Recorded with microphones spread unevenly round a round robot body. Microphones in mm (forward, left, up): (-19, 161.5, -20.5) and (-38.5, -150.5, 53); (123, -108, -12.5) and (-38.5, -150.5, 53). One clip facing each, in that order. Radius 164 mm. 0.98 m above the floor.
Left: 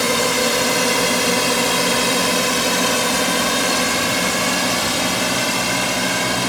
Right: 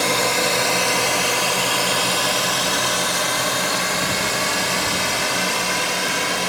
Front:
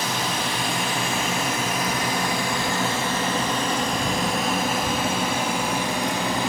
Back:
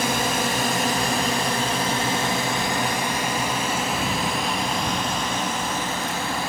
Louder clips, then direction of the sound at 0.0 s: Left 3 dB, back 4 dB; 140° left.